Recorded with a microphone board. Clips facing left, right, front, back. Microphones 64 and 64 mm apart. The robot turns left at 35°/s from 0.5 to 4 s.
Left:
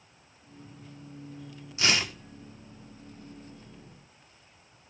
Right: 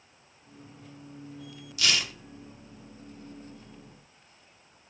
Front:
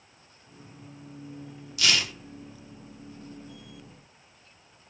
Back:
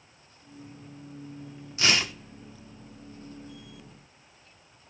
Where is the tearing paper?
140° left, 1.1 m; by 2.1 s 125° left, 1.1 m.